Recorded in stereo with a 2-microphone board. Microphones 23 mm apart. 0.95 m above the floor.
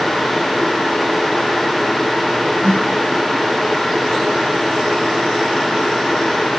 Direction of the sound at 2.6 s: 65° left (ahead or behind).